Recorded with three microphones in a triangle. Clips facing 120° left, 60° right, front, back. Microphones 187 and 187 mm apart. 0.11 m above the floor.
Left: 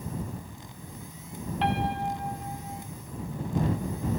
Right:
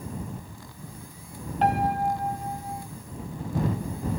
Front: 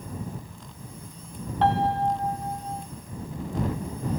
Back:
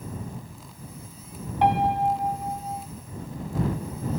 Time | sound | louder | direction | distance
1.6 | a piano | right 5 dB, back 1 dB | 105° right | ?